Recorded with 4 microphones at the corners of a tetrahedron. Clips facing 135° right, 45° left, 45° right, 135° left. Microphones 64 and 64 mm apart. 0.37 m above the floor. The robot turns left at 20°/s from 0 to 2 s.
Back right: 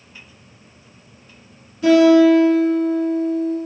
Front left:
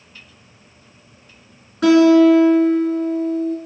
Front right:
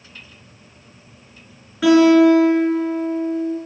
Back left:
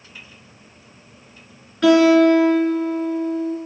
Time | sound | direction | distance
1.8 | a guitar | 35° left | 3.5 m